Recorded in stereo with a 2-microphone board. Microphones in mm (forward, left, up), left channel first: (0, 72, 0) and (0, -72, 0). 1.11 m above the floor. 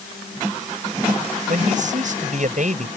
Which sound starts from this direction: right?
A man speaking, at 1.5 s.